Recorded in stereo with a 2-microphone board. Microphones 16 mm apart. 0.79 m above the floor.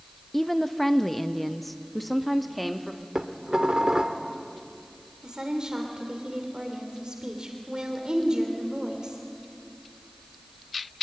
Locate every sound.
0.3 s a woman speaking: 15° left (ahead or behind), 0.8 m; by 3.0 s 5° left (ahead or behind), 1.7 m
3.1 s dishes clattering: 85° right, 1.4 m
5.2 s a woman speaking: 65° right (ahead or behind), 3 m